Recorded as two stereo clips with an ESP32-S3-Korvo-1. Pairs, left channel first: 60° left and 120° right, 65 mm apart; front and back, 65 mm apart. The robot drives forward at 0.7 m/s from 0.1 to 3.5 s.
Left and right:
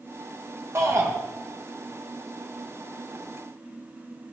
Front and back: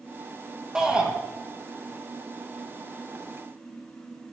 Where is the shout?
110° right, 1.7 m; by 1.1 s 120° right, 1.7 m.